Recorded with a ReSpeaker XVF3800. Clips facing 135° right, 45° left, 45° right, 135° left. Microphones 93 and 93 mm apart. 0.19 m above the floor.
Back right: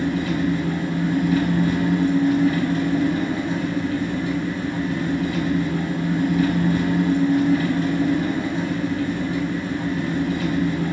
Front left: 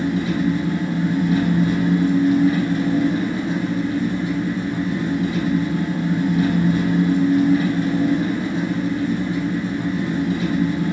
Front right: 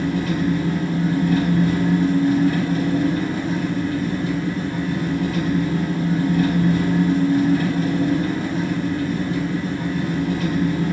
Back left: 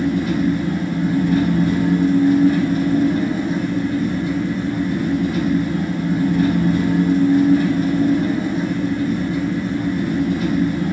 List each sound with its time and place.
0.0 s an engine running: 110° left, 1.9 m